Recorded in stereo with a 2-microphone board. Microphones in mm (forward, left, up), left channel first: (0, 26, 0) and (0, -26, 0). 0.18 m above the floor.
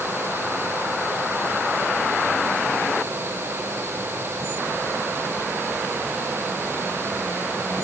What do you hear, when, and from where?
Only background noise.